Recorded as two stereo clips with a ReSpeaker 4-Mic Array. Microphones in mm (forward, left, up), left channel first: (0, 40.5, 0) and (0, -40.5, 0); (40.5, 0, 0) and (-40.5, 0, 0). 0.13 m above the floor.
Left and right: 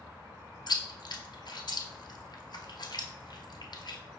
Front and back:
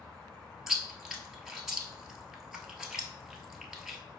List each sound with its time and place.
0.7 s chewing: 95° left, 0.8 m